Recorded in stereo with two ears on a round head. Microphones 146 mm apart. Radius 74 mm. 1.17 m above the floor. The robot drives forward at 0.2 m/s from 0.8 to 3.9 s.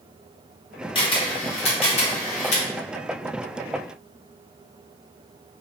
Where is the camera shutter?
30° left (ahead or behind), 0.9 m; by 2.6 s 45° left (ahead or behind), 0.7 m.